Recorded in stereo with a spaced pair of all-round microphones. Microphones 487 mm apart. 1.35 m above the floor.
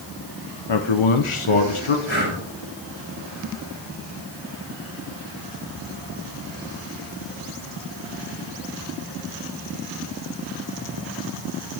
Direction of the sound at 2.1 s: 65° right (ahead or behind).